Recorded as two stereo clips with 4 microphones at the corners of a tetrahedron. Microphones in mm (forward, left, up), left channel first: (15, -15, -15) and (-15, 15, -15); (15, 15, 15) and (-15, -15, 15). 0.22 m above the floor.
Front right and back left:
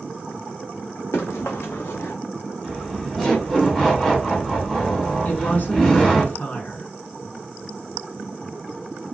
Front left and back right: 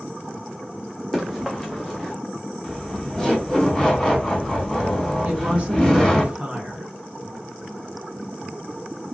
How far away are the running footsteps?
About 1.8 m.